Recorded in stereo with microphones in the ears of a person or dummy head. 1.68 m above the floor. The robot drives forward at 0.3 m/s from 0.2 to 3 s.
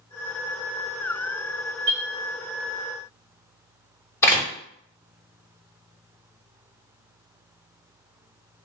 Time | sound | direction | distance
1.9 | a clink | 40° right (ahead or behind) | 0.9 m
4.2 | a door slam | 15° left (ahead or behind) | 0.6 m